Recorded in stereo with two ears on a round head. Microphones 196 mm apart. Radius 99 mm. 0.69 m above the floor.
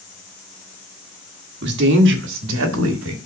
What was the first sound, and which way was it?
A woman speaking, 50° right (ahead or behind).